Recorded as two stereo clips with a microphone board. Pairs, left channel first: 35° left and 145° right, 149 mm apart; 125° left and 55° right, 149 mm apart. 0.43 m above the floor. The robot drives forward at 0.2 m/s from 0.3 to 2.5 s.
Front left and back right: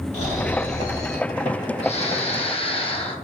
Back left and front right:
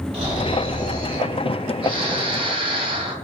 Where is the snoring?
5° right, 1.0 m; by 3.1 s 10° right, 0.6 m.